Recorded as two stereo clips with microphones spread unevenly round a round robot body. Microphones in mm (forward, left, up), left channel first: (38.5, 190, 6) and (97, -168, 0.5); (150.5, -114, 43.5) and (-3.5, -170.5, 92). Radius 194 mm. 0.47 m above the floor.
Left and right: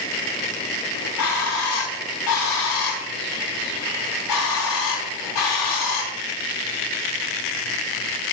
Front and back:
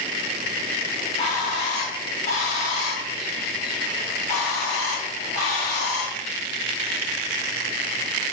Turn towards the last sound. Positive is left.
turn(degrees=70)